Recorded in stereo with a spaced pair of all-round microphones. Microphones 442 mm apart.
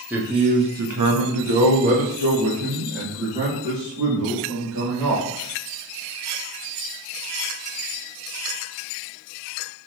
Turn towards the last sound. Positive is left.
turn(degrees=-55)  # may be behind; listen again after turning